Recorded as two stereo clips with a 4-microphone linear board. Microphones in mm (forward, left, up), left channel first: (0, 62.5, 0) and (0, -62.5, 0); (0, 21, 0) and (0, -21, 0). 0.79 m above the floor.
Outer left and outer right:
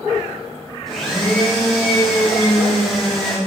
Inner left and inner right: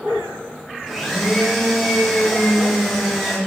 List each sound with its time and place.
0.9 s a blender: centre (ahead or behind), 2.5 m